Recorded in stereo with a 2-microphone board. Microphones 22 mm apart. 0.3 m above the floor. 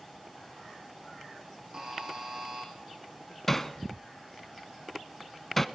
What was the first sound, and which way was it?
A buzzer, 35° right (ahead or behind).